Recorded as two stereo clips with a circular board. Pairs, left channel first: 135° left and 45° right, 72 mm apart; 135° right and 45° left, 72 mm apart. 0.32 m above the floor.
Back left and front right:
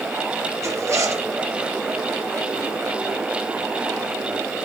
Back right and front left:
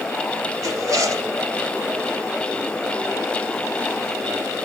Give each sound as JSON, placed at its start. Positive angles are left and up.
{"t": 0.6, "sound": "a zipper", "azimuth_deg": 5, "distance_m": 3.0}